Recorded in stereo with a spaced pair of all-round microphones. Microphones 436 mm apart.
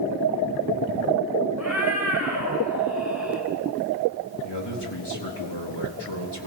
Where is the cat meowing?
40° left (ahead or behind), 7 m.